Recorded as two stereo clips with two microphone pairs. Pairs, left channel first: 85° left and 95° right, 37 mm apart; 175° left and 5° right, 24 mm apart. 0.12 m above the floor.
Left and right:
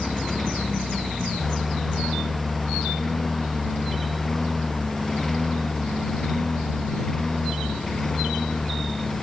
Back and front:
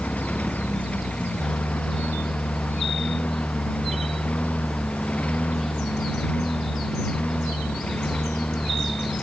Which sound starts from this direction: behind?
A lawn mower, at 0.0 s.